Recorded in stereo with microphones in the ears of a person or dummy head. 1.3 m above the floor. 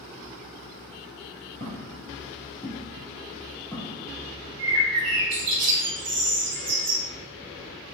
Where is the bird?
60° right (ahead or behind), 1.0 m.